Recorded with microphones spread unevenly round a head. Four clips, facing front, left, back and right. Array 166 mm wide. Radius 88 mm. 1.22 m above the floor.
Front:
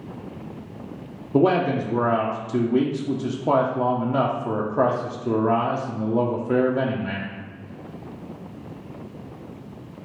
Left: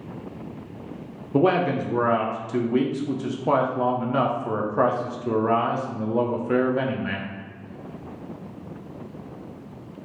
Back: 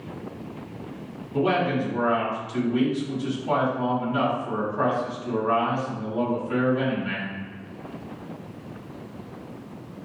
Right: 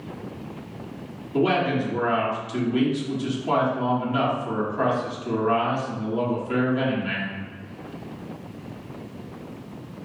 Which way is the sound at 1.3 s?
25° left.